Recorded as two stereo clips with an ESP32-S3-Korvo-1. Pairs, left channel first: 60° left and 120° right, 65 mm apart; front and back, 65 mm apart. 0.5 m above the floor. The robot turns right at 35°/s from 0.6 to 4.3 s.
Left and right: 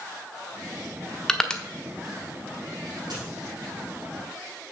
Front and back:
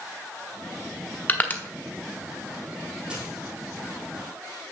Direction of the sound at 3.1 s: 100° right.